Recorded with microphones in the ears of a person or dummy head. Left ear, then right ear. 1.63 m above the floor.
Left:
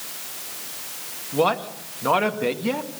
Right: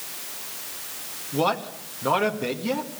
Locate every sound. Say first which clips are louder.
1.3 s a man speaking: left 3 dB; 10° left (ahead or behind), 1.9 m